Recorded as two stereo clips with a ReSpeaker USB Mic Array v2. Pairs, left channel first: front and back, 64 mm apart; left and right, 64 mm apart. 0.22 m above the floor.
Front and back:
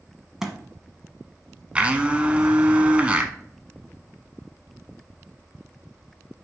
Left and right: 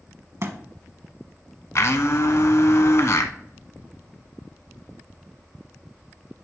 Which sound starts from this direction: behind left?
A blender, at 1.8 s.